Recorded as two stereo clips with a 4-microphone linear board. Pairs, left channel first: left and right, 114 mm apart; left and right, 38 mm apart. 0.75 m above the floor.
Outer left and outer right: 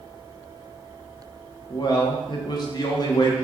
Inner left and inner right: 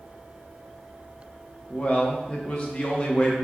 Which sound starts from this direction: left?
A man speaking, at 1.7 s.